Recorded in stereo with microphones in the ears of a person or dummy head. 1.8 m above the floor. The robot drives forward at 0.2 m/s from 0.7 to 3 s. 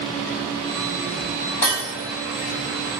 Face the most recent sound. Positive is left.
turn(degrees=15)  # may be behind; listen again after turning